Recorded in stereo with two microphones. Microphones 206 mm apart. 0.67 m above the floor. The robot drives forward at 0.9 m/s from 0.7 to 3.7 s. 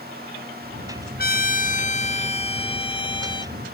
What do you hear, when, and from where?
1.2 s a trumpet: 50° left (ahead or behind); by 3.5 s 20° left (ahead or behind)